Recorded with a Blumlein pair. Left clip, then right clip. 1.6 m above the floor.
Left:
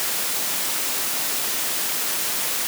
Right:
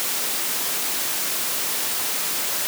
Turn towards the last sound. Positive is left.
No sound to turn to.